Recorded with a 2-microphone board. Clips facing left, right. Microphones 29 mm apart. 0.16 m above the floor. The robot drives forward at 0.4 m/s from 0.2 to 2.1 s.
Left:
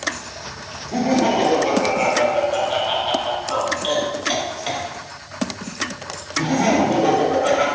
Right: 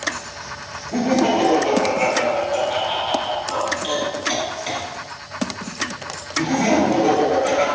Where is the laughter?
20° left (ahead or behind), 1.0 m; by 7.7 s 15° left (ahead or behind), 1.1 m.